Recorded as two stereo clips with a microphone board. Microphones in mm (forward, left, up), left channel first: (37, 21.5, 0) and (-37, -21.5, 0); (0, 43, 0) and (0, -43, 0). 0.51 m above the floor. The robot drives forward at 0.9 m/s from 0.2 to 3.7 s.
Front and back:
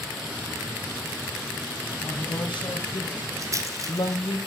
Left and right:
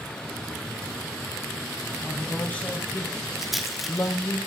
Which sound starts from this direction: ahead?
A woman speaking, at 2.0 s.